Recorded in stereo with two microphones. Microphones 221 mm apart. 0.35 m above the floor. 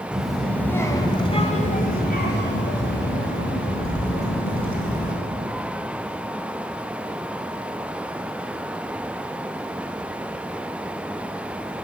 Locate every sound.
0.1 s a child speaking: 5° right (ahead or behind), 1.6 m; by 5.1 s 75° left (ahead or behind), 3 m